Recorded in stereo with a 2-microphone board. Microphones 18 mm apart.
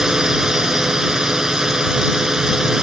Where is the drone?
30° right (ahead or behind).